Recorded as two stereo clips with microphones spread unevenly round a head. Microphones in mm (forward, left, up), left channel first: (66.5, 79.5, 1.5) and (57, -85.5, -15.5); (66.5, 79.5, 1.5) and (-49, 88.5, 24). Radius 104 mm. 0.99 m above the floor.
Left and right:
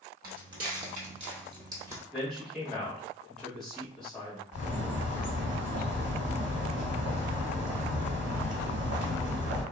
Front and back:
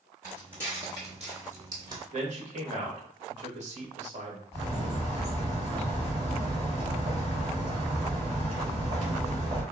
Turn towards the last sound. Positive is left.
turn(degrees=-105)